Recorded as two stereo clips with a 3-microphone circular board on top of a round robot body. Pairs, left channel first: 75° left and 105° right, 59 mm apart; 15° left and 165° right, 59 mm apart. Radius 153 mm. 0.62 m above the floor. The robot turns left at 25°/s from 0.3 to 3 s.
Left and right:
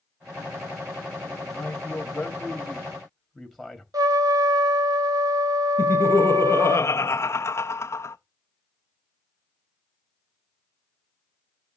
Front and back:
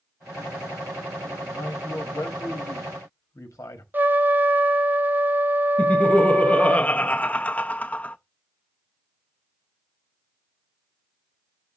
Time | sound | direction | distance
1.5 | a man speaking | 20° left | 1.3 m
3.9 | a trumpet | 105° right | 1.0 m
5.8 | laughter | 70° left | 0.6 m